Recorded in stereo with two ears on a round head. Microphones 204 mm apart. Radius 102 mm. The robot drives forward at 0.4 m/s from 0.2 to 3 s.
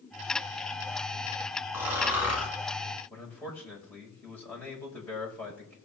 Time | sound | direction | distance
1.7 | snoring | 10° right (ahead or behind) | 3 m
3.1 | a man speaking | 5° left (ahead or behind) | 5 m